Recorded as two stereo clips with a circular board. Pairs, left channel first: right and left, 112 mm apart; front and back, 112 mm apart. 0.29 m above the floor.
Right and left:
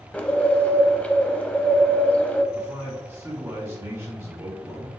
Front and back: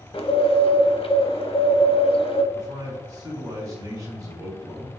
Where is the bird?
15° right, 0.7 m.